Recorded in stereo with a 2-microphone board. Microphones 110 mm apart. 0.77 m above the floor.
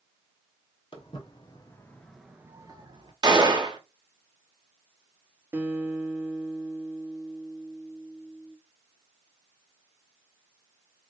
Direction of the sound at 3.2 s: 40° right (ahead or behind).